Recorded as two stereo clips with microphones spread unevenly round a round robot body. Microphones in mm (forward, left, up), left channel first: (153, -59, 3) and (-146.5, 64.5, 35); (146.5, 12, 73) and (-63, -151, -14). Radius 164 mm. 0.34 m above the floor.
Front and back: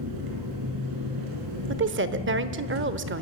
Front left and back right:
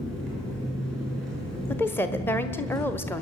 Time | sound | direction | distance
0.0 | an engine running | 130° left | 5 m
1.7 | a woman speaking | 145° left | 1.3 m